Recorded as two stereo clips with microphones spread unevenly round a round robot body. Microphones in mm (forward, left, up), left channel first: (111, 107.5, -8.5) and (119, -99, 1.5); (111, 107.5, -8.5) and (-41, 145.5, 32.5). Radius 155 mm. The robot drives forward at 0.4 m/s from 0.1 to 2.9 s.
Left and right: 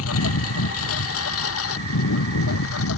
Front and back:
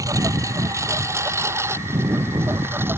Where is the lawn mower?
100° left; by 3.0 s 90° left.